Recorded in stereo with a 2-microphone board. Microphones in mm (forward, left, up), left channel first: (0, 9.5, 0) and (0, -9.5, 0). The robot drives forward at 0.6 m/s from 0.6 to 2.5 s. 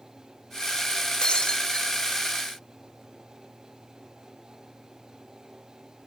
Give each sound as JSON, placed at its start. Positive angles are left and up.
{"t": 1.2, "sound": "breaking glass", "side_deg": 70, "distance_m": 4.5}